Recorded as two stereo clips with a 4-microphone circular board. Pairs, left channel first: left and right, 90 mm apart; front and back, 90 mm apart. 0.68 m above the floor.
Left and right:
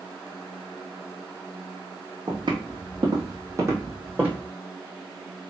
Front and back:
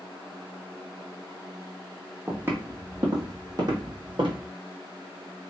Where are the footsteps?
110° right, 1.6 m; by 4.4 s 160° right, 1.9 m.